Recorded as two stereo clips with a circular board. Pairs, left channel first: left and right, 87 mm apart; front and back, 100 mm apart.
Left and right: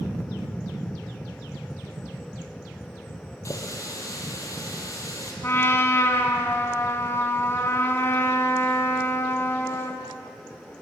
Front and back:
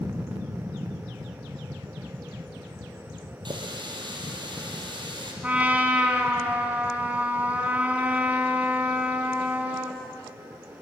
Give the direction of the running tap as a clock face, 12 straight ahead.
7 o'clock.